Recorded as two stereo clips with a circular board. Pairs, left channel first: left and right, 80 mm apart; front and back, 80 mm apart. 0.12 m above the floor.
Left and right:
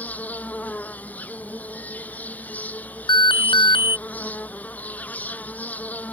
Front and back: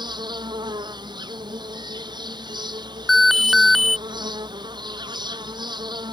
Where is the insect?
160° left.